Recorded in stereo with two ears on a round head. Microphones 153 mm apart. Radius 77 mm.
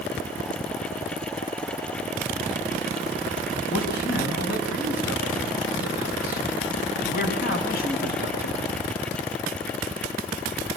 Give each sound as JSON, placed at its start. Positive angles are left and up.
{"t": 3.7, "sound": "a man speaking", "side_deg": 60, "distance_m": 7.5}